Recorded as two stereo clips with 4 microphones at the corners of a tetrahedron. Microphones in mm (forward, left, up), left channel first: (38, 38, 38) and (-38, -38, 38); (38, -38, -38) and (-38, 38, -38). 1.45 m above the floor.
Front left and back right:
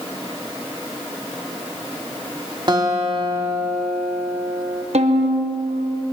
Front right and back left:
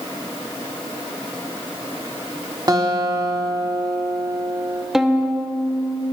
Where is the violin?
140° right, 1.1 m.